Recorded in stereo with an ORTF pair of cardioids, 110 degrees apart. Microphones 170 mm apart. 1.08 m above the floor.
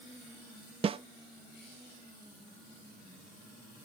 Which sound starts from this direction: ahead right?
A snare drum, at 0.8 s.